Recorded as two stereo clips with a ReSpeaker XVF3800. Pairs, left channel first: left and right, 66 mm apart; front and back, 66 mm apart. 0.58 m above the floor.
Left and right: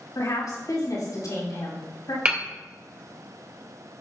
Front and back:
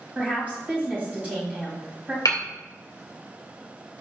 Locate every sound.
0.1 s a woman speaking: 115° left, 4 m
2.2 s hammering: 20° right, 2 m